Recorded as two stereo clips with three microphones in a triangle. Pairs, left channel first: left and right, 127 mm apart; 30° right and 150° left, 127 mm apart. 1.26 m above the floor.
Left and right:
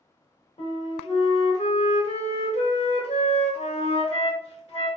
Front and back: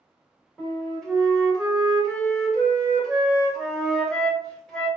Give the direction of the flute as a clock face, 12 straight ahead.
10 o'clock.